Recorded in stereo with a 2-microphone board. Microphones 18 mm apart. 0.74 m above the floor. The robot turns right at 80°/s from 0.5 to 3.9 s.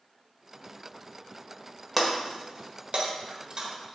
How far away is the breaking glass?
About 1.4 m.